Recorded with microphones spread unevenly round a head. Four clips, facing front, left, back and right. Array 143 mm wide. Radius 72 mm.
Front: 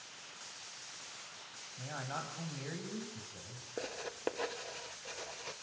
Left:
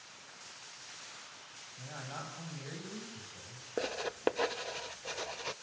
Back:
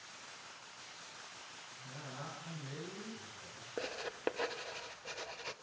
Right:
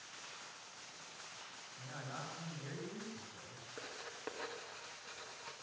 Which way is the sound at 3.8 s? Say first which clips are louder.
Left 15 dB, even; 95° left.